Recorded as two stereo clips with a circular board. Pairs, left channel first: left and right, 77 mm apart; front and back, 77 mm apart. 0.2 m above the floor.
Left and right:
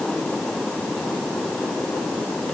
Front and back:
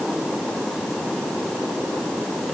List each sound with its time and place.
Only background noise.